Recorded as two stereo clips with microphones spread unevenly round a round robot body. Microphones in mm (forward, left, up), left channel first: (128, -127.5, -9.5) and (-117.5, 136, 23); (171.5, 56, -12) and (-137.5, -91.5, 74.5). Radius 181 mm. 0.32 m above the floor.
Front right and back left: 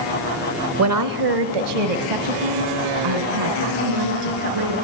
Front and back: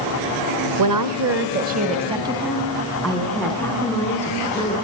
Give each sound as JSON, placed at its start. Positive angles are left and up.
{"t": 0.8, "sound": "a woman speaking", "azimuth_deg": 180, "distance_m": 1.4}